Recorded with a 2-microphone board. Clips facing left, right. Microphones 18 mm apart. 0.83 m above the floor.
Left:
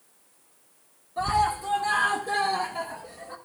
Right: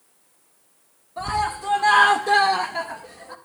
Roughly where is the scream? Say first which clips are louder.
Left 1 dB; centre.